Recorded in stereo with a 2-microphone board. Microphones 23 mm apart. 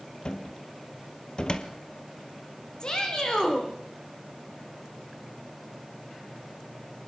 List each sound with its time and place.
0.2 s a cupboard door: 40° left (ahead or behind), 1.7 m
2.8 s a shout: 35° left (ahead or behind), 7 m